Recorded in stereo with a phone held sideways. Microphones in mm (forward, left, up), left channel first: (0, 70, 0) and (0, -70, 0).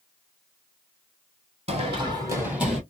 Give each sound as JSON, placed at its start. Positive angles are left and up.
{"t": 1.7, "sound": "running footsteps", "side_deg": -45, "distance_m": 2.0}